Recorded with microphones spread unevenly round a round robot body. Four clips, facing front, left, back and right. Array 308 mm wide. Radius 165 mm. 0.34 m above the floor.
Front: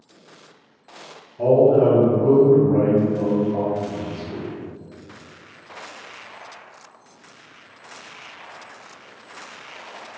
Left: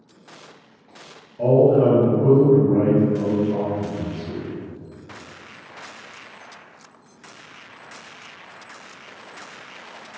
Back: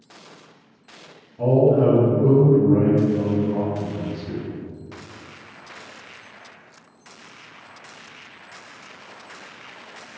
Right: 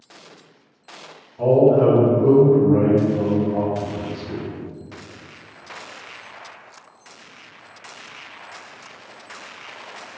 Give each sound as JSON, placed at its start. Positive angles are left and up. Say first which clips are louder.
{"t": 1.4, "sound": "a man speaking", "louder": "right 1 dB, front 2 dB", "azimuth_deg": -175, "distance_m": 2.0}